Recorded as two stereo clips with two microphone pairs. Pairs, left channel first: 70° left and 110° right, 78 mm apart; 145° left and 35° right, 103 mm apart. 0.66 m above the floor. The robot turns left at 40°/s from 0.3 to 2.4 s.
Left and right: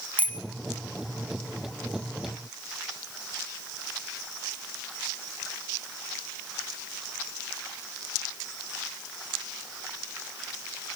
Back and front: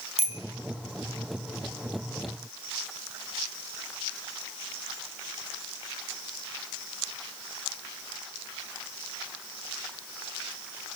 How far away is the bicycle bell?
About 3.5 m.